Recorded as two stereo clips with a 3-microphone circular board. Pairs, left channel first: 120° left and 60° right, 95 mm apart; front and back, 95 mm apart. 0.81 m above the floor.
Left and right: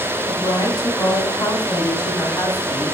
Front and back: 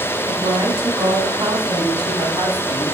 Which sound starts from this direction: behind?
A woman speaking, at 0.3 s.